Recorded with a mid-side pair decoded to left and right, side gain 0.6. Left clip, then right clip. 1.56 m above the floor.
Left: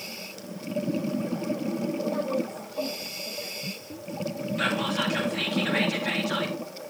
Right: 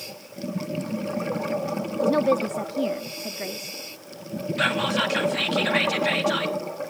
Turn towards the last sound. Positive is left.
turn(degrees=-30)